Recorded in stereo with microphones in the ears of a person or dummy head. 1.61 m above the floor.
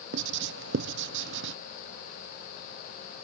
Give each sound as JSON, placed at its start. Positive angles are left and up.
{"t": 0.1, "sound": "writing", "side_deg": -70}